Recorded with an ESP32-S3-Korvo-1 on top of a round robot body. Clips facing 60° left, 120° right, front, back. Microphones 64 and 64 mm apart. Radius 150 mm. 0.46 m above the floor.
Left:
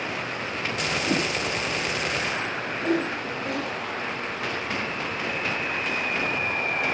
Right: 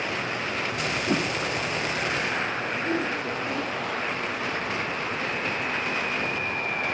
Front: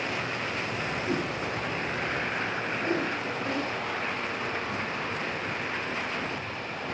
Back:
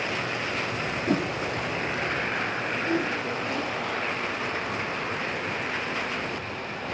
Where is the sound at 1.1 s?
155° left, 0.8 m.